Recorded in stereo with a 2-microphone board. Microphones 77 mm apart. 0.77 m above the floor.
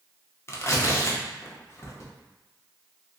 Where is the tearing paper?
35° left (ahead or behind), 0.5 m.